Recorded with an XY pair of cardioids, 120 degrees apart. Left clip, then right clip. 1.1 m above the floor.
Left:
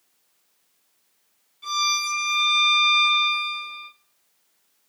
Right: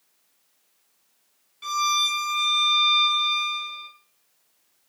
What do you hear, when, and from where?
1.6 s a violin: 60° right, 2.5 m